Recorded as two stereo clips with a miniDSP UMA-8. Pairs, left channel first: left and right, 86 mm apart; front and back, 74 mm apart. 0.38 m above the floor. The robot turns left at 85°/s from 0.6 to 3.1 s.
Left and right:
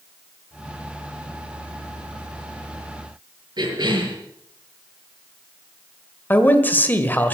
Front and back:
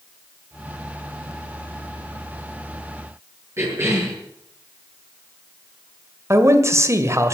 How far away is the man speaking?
About 1.7 m.